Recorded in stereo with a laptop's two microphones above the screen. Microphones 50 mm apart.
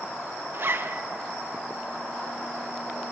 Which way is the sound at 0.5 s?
50° right (ahead or behind).